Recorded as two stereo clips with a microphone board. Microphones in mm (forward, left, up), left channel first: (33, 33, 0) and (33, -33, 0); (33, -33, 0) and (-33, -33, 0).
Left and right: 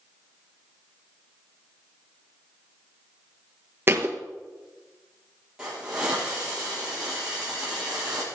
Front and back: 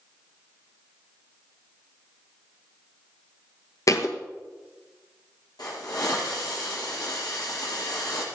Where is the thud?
35° right, 1.5 m.